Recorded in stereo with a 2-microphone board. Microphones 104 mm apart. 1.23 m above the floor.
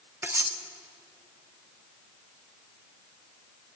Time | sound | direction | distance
0.2 | cutlery clinking | 20° right (ahead or behind) | 0.6 m